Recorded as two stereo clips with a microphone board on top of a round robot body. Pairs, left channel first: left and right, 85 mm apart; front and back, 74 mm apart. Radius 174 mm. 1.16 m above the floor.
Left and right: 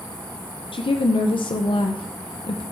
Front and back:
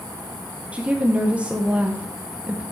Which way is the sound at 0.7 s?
105° left.